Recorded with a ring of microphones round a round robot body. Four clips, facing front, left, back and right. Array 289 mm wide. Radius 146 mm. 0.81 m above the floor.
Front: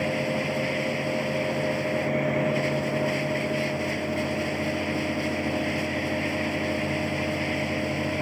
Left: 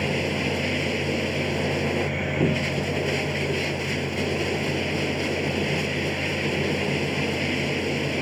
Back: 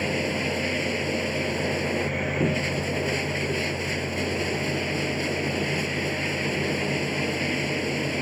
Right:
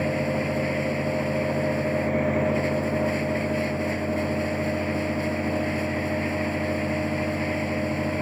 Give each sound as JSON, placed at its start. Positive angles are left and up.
{"t": 0.0, "sound": "running water", "azimuth_deg": 115}